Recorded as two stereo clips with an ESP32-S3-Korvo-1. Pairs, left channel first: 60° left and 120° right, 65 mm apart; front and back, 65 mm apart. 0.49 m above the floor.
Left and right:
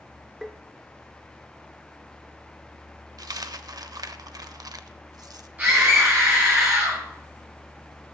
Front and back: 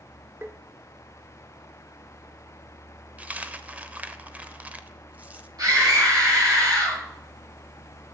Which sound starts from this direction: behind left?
Tapping, at 0.4 s.